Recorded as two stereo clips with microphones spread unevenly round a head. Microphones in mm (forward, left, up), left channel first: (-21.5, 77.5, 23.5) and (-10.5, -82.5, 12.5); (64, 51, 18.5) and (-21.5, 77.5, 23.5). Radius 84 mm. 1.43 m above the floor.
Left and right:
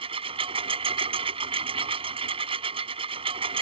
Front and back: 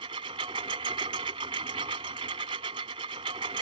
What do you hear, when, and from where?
0.0 s a lawn mower: 140° right